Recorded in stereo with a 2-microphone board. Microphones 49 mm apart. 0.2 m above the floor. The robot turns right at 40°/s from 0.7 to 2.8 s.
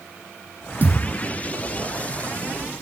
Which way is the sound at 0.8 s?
35° right (ahead or behind).